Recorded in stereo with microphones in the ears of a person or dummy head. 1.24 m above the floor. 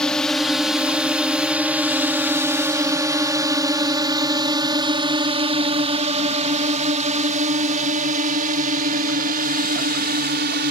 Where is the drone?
5° left (ahead or behind); by 10.7 s 50° right (ahead or behind).